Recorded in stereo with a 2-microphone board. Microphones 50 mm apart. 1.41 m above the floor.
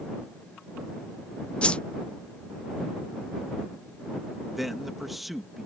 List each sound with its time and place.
1.6 s a whoosh: 20° left (ahead or behind)
4.5 s a man speaking: 5° right (ahead or behind)